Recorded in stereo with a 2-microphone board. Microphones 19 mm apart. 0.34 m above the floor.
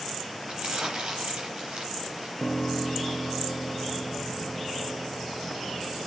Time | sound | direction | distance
0.5 | crumpling | 50° right (ahead or behind) | 5.5 m
2.4 | a piano | 80° left | 2.5 m